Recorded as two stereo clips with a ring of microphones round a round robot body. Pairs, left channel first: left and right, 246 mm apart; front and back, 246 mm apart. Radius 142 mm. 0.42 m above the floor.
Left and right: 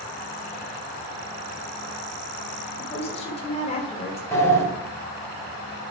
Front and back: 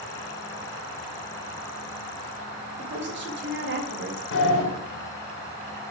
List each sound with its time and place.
2.8 s a woman speaking: 150° left, 1.7 m
4.3 s a sliding door: 10° left, 2 m